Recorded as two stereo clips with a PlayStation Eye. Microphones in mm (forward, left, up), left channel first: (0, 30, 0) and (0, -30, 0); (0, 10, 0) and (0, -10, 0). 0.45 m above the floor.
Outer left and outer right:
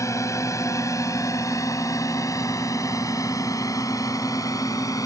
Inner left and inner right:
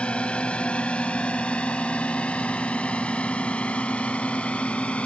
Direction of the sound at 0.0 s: 60° left (ahead or behind).